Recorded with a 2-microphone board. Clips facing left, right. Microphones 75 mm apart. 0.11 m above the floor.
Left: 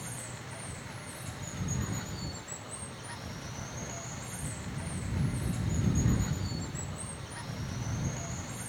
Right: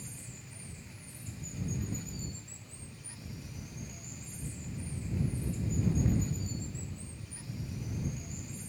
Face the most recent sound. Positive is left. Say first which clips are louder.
# left 7 dB
turn(degrees=75)  # may be behind; listen again after turning